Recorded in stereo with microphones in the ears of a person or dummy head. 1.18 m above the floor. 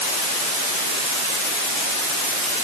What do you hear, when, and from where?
Only background noise.